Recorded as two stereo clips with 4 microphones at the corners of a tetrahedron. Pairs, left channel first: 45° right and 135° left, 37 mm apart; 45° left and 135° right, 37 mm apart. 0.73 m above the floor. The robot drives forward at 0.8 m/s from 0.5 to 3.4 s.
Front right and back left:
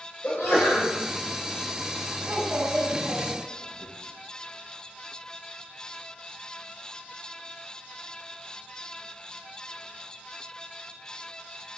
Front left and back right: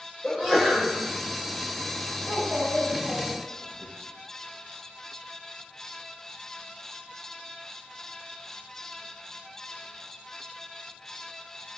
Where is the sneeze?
50° right, 3 m; by 0.9 s 60° right, 2.5 m.